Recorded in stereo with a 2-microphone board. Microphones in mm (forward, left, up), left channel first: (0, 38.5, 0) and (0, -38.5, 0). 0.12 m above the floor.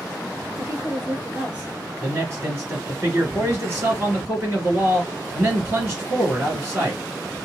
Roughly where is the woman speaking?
Right.